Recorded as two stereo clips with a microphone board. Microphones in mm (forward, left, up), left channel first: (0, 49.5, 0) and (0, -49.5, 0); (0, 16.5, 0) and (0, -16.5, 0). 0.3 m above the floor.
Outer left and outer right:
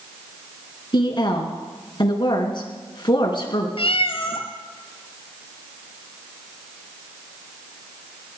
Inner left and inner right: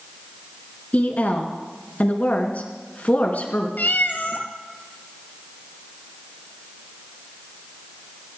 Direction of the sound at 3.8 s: 70° left (ahead or behind).